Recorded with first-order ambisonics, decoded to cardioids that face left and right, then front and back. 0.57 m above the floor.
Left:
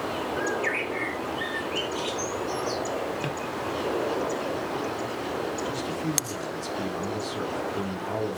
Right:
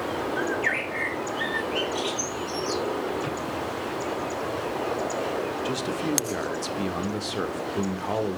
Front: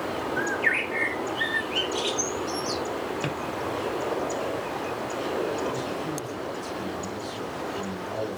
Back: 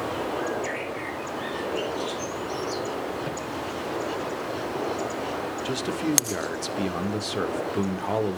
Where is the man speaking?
150° right, 1.3 m.